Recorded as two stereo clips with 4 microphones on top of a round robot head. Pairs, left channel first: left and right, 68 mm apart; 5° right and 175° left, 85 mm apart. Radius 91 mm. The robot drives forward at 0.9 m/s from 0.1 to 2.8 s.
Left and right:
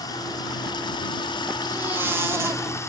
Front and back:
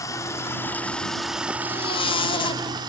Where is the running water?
45° left, 1.6 m; by 2.9 s 140° left, 1.8 m.